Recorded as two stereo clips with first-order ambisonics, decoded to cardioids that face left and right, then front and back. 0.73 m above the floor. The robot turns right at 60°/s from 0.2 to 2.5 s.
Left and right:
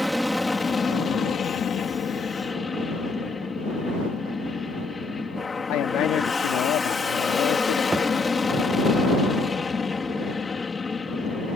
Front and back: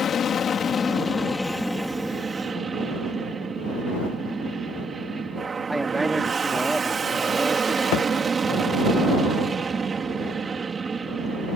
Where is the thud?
10° right.